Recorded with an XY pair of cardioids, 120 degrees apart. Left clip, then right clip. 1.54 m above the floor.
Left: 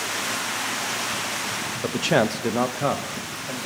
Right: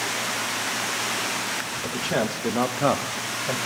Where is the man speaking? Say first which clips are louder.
Left 6 dB; 50° left, 0.6 m; by 3.6 s 50° right, 0.8 m.